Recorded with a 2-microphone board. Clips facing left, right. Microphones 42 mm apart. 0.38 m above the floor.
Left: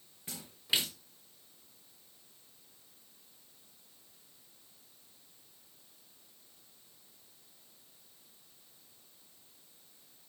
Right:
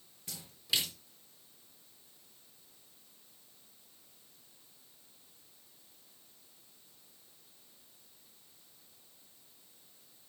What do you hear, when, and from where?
0.3 s a splash: 30° left (ahead or behind), 3.5 m